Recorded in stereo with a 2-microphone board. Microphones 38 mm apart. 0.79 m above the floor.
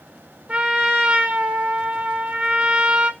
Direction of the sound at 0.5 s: 45° right (ahead or behind).